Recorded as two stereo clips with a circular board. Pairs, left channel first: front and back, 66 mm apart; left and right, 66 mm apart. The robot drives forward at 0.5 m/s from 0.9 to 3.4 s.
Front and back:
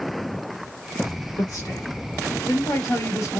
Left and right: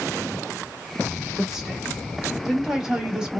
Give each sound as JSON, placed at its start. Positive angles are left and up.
{"t": 1.4, "sound": "a woman speaking", "azimuth_deg": -10, "distance_m": 2.0}